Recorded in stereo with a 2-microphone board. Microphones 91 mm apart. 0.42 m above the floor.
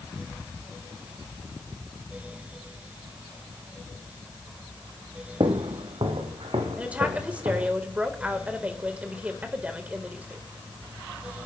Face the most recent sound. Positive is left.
turn(degrees=-15)  # may be behind; listen again after turning